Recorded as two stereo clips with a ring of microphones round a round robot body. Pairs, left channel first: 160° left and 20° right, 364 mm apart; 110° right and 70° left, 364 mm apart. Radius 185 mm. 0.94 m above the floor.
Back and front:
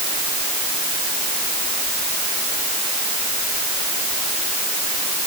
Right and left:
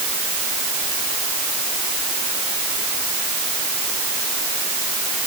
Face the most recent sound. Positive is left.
No sound to turn to.